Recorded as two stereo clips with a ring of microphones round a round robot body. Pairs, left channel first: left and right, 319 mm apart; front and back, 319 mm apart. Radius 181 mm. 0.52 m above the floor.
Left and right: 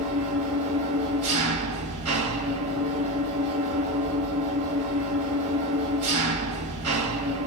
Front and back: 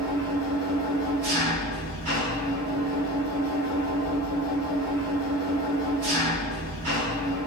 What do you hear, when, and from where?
0.0 s an engine running: 135° right, 1.4 m